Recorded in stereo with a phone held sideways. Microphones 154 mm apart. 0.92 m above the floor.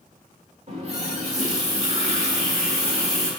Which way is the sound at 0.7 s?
45° right (ahead or behind).